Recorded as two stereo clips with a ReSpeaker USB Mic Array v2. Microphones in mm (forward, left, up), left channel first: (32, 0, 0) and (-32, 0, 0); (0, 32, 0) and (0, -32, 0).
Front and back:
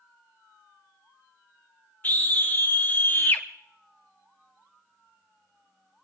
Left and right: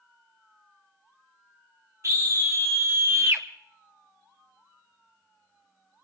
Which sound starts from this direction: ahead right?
A scream, at 2.0 s.